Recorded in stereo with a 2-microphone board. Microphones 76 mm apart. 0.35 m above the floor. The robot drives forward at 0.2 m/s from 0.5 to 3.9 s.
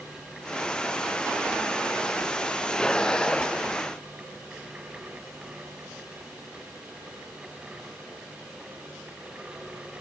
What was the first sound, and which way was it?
Only background noise.